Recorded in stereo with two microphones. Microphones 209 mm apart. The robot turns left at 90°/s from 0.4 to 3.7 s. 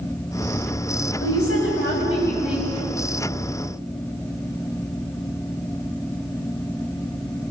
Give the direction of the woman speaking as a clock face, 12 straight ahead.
8 o'clock.